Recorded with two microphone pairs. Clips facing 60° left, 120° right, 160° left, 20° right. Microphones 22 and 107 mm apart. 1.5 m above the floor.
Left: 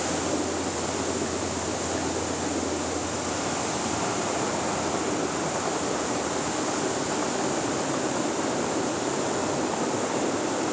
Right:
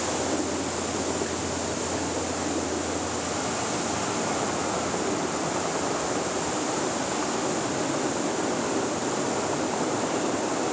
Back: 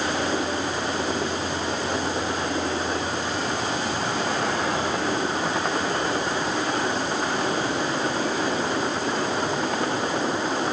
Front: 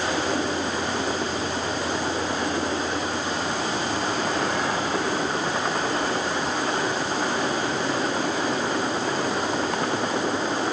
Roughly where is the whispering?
No whispering in this recording.